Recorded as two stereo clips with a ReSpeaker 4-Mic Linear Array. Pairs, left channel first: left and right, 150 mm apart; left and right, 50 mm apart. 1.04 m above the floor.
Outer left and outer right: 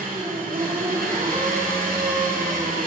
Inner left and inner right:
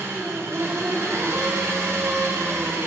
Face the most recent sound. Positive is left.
turn(degrees=-75)  # may be behind; listen again after turning